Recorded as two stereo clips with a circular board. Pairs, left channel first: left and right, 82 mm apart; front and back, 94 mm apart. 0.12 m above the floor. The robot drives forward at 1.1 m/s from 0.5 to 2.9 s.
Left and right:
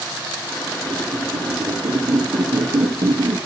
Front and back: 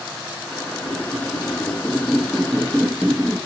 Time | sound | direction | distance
0.8 | a squeak | 50° right | 3 m